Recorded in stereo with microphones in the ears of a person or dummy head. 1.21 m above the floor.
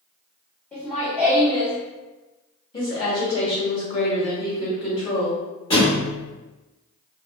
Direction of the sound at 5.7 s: 20° left (ahead or behind).